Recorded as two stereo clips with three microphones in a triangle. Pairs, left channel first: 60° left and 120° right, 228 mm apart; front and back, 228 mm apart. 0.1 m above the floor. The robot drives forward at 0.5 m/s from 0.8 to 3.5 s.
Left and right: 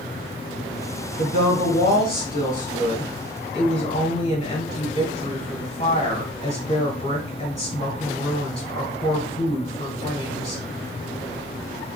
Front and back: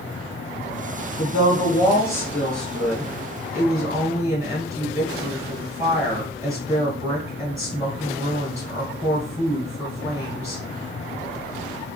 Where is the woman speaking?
55° left, 1.7 m; by 10.6 s 110° left, 1.6 m.